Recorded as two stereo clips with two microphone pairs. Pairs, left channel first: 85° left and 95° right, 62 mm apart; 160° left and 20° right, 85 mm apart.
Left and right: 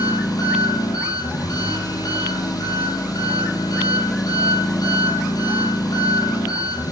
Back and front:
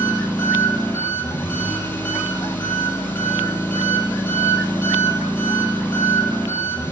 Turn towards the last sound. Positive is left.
turn(degrees=90)